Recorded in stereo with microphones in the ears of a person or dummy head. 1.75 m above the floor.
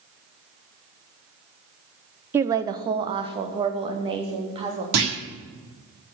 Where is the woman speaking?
10° right (ahead or behind), 0.6 m; by 4.8 s 30° right (ahead or behind), 3.5 m.